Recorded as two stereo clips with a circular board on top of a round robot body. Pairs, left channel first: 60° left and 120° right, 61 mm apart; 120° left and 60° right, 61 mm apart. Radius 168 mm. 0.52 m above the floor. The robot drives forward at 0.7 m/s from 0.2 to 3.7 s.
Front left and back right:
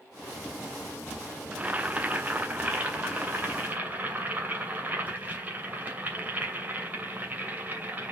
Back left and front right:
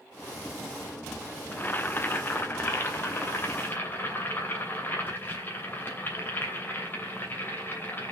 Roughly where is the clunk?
I don't hear a clunk.